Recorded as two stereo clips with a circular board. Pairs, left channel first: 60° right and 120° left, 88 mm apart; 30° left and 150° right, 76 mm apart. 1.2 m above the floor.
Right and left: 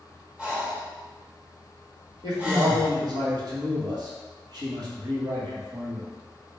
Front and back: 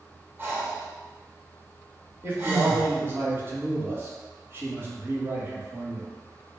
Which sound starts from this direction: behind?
Breathing, at 0.4 s.